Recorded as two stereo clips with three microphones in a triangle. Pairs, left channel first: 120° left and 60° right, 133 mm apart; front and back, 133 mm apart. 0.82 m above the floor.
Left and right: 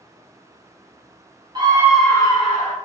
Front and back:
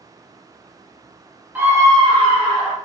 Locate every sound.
1.6 s a scream: 105° right, 1.1 m; by 2.8 s 135° left, 1.4 m